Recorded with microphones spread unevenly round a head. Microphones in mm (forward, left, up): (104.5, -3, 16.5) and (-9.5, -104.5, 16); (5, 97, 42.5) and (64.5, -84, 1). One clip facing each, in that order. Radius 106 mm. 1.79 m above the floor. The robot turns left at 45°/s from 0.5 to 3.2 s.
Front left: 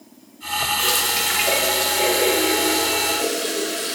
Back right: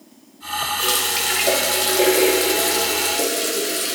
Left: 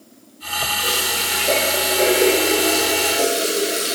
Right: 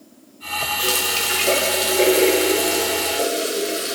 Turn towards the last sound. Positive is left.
turn(degrees=-175)